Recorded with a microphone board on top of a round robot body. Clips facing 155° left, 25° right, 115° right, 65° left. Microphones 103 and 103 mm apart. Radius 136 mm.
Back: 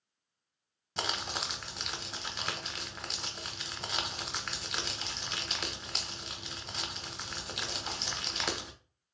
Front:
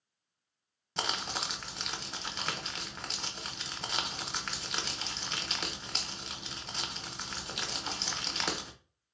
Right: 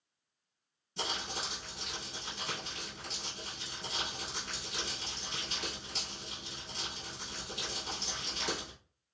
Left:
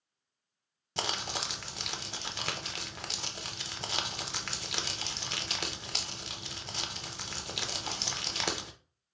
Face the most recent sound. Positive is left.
turn(degrees=70)